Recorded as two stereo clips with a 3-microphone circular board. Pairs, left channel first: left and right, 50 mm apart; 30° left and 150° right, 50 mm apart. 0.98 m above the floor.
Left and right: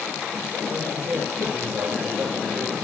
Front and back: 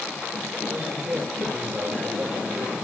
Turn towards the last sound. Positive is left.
turn(degrees=-85)